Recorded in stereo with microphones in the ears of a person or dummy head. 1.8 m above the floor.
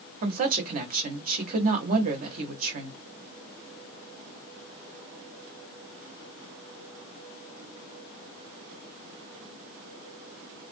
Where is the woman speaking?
45° right (ahead or behind), 1.0 m.